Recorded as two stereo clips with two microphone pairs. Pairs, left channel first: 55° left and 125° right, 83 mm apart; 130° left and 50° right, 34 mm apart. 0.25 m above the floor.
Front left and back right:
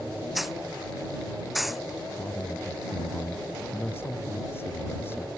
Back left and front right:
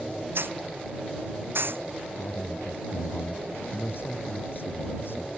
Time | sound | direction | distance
0.3 | a hiss | 35° right | ?
2.2 | a man speaking | 120° left | ?